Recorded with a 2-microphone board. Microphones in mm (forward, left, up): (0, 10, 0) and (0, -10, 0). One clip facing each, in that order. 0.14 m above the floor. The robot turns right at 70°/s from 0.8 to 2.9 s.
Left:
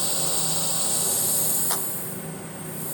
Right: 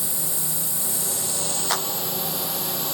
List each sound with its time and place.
0.0 s a drone: 155° left; by 2.9 s 55° right
1.7 s a clap: 25° right (ahead or behind); by 1.9 s 15° right (ahead or behind)